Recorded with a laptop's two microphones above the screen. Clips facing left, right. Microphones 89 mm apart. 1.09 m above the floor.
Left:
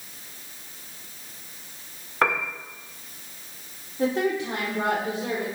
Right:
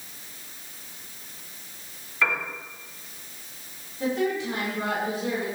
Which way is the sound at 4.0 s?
80° left.